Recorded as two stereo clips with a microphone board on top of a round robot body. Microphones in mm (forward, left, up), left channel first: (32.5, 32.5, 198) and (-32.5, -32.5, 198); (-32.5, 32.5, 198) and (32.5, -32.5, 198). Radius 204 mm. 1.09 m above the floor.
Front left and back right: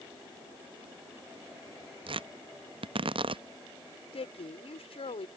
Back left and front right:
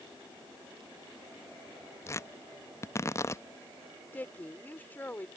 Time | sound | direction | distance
2.1 | tearing paper | 165° right | ?
4.1 | a woman speaking | 60° left | ?